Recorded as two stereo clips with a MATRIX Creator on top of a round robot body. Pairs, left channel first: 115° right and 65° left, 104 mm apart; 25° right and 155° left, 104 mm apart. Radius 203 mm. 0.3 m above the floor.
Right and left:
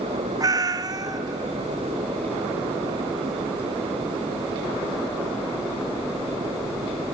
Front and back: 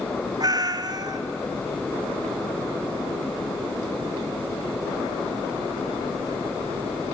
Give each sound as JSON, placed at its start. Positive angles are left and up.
{"t": 0.4, "sound": "a cat meowing", "azimuth_deg": 115, "distance_m": 0.8}